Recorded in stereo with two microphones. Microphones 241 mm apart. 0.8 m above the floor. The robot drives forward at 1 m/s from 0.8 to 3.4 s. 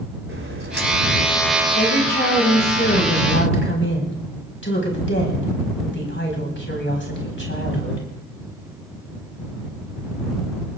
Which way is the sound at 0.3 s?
65° right (ahead or behind).